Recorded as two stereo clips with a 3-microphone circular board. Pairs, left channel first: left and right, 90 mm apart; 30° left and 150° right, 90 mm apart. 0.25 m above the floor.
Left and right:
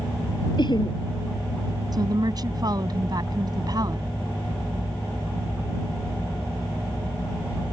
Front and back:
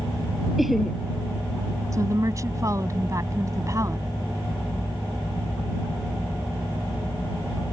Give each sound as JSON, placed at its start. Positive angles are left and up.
{"t": 0.6, "sound": "laughter", "azimuth_deg": 120}
{"t": 1.9, "sound": "a woman speaking", "azimuth_deg": -110}